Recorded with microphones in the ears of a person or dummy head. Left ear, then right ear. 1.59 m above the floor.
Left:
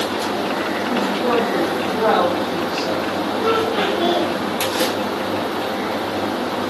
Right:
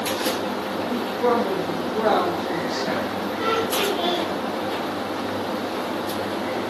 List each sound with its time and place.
0.9 s a woman speaking: 80° right, 1.9 m
3.4 s laughter: 25° right (ahead or behind), 2 m